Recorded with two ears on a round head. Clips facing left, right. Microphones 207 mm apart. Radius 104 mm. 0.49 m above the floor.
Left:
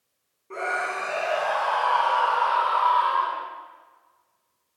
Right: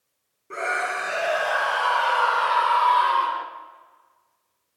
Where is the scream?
20° right (ahead or behind), 4 m; by 3.5 s 40° right (ahead or behind), 1.4 m.